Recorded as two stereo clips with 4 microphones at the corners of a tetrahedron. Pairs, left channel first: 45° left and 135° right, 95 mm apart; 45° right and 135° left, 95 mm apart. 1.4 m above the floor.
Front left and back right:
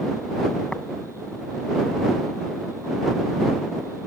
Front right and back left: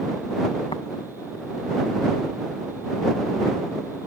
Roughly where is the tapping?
Ahead right.